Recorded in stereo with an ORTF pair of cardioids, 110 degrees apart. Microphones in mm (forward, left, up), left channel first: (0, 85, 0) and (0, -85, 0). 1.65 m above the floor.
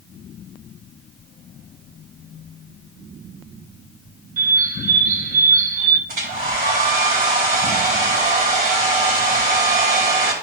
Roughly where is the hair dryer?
Ahead right.